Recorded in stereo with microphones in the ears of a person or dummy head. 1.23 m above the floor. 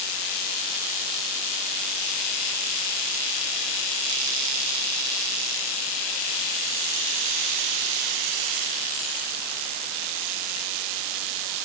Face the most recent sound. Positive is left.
No sound to turn to.